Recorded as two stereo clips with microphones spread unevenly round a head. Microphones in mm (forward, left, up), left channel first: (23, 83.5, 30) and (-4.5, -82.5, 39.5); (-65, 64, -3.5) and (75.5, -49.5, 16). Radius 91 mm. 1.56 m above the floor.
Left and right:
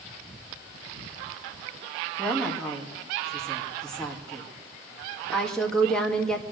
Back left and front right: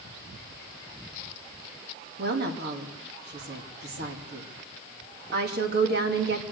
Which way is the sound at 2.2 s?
5° right.